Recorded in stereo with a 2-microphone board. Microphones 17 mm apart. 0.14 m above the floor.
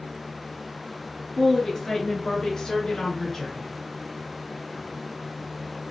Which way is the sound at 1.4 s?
25° left (ahead or behind).